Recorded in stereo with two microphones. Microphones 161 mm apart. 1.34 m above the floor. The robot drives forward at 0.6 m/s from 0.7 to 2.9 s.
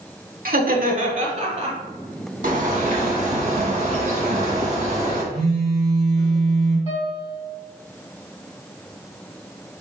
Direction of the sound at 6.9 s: 40° left (ahead or behind).